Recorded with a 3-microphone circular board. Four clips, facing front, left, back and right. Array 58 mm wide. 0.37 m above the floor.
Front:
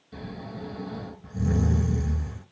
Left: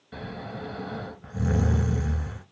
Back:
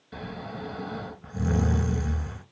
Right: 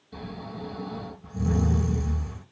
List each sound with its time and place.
0.1 s snoring: 125° left, 1.2 m